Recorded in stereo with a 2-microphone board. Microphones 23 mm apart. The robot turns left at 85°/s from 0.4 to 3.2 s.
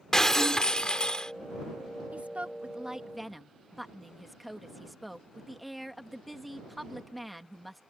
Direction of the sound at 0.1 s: 135° left.